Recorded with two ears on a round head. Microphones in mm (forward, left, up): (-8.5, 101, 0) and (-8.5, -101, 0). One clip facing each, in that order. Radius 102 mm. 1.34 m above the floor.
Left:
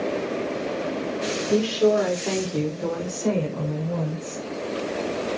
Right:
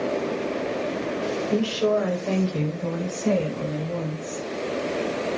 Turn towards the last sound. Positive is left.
turn(degrees=75)  # may be behind; listen again after turning